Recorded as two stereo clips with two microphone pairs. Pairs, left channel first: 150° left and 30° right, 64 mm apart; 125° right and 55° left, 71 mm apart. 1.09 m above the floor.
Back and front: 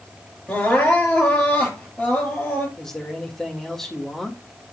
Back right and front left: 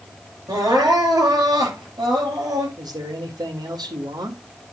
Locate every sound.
0.5 s crying: 80° left, 8.5 m
2.8 s a man speaking: 65° left, 2 m